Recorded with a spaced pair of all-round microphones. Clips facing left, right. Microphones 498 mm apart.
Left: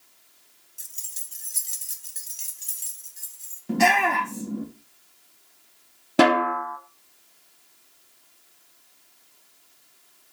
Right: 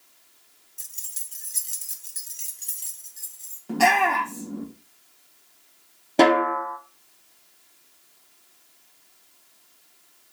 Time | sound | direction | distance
0.8 | keys jangling | 20° right (ahead or behind) | 0.6 m
3.7 | a shout | 40° left (ahead or behind) | 1.6 m
6.2 | a snare drum | 30° left (ahead or behind) | 0.8 m